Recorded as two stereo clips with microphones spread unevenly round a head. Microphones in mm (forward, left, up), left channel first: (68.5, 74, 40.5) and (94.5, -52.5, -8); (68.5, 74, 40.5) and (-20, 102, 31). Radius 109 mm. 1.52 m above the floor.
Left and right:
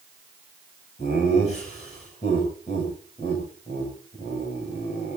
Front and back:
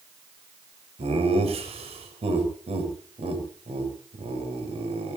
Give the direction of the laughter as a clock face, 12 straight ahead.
7 o'clock.